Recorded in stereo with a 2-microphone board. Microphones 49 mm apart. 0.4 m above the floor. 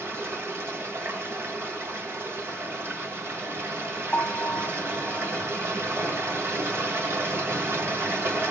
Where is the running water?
55° right (ahead or behind), 2.5 m.